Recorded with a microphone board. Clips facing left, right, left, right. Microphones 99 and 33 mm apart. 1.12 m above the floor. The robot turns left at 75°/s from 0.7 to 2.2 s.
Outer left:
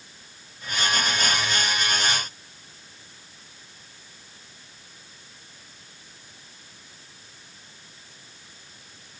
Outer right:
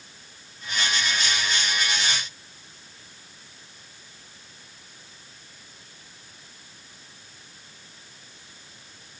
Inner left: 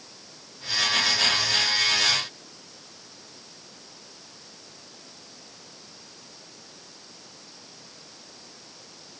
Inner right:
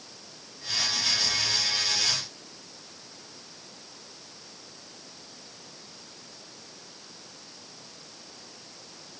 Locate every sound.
Only background noise.